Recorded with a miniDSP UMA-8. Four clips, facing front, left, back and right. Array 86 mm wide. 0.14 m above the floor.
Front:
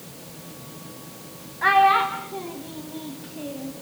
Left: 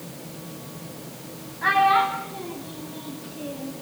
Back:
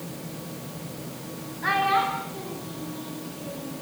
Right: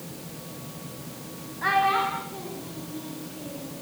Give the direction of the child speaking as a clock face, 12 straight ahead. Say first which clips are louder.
Left 4 dB, front 6 dB; 12 o'clock.